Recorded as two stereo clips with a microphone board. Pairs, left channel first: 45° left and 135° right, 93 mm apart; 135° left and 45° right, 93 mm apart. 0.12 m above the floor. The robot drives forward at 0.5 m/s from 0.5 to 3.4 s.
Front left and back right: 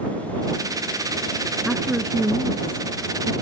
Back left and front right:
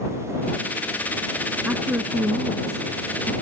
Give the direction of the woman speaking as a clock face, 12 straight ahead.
2 o'clock.